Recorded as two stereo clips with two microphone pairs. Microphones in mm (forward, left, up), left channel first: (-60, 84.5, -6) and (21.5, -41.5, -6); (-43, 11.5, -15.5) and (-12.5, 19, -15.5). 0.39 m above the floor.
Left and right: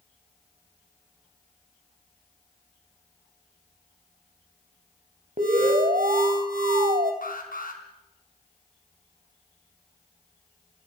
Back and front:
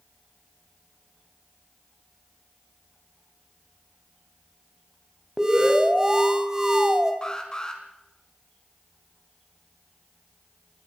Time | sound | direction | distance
5.4 | an alarm | 50° right | 3 m
7.2 | an alarm | 130° left | 4 m